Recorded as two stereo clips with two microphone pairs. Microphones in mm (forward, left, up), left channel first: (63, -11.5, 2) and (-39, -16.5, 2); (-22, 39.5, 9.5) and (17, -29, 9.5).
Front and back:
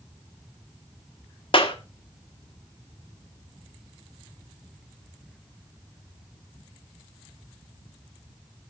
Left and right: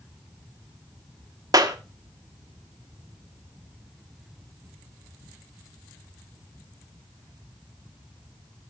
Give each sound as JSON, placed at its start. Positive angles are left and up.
{"t": 1.5, "sound": "a clap", "azimuth_deg": -25, "distance_m": 1.3}